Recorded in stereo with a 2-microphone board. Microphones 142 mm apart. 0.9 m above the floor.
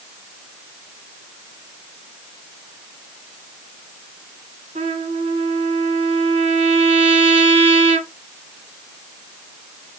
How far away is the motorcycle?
No motorcycle in this recording.